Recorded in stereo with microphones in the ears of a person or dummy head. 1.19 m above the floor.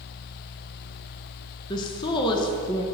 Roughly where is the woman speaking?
Centre.